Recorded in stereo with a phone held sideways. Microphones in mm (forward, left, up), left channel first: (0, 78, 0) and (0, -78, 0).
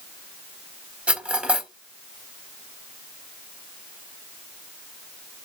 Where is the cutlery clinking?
10° right (ahead or behind), 1.2 m.